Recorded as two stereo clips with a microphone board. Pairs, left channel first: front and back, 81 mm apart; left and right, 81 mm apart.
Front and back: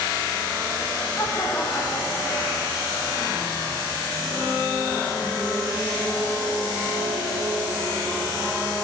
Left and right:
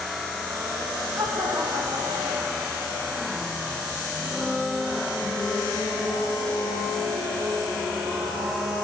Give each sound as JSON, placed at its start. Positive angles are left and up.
{"t": 1.2, "sound": "laughter", "azimuth_deg": -50, "distance_m": 4.5}